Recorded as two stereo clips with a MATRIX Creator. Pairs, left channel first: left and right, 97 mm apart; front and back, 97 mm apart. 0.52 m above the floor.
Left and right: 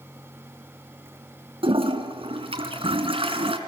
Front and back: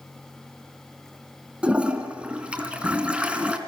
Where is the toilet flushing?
100° right, 3 m.